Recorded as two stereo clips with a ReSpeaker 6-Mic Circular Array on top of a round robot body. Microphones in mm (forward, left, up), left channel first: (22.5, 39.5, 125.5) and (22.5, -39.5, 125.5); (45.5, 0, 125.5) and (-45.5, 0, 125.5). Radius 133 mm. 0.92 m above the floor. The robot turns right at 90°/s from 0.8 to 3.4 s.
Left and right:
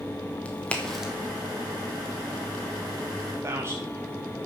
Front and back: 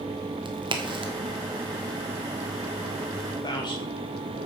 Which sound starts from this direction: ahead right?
A man speaking, at 3.4 s.